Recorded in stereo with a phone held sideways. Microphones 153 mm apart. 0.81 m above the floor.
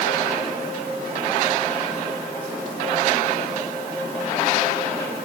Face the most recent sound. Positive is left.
No sound to turn to.